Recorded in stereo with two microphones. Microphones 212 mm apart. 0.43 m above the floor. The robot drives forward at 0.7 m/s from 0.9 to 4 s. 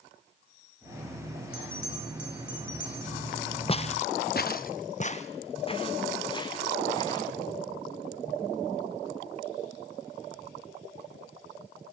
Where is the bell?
70° left (ahead or behind), 4 m; by 3.2 s 65° left (ahead or behind), 4 m.